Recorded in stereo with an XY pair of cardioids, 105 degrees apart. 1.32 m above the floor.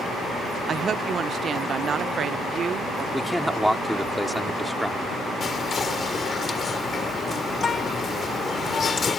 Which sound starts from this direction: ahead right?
A woman speaking, at 0.7 s.